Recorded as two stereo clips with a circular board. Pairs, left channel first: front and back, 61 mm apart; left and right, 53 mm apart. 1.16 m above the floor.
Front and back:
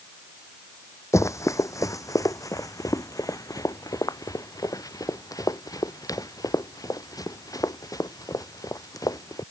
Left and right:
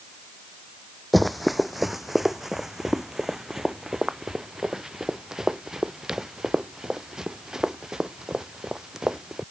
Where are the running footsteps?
Straight ahead; by 9.4 s 15° right.